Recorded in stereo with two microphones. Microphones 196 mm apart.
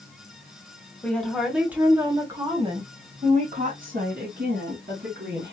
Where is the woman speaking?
5° left (ahead or behind), 1.5 m; by 5.5 s 60° right (ahead or behind), 2.5 m.